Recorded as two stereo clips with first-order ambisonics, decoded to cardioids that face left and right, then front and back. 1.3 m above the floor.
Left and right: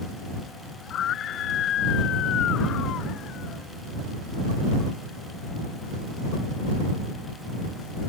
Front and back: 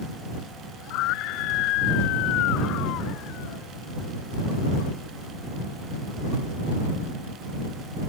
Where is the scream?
35° left; by 3.7 s 40° left.